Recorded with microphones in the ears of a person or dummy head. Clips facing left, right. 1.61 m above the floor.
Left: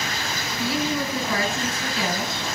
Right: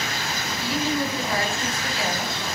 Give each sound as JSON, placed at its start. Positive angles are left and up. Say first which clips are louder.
{"t": 0.6, "sound": "a woman speaking", "louder": "even", "side_deg": 70, "distance_m": 1.7}